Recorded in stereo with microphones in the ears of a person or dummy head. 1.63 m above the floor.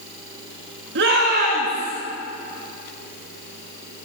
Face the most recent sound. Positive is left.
turn(degrees=-30)  # may be behind; listen again after turning